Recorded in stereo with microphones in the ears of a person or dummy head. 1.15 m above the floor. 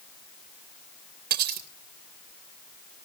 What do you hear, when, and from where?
1.3 s cutlery clinking: 40° right (ahead or behind), 2.5 m